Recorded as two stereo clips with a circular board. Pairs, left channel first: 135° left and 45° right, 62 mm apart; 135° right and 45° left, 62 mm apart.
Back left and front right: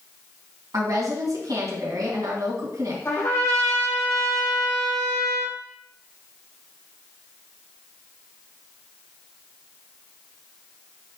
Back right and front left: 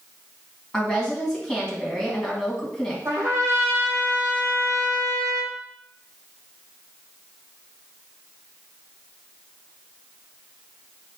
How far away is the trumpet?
About 3.5 m.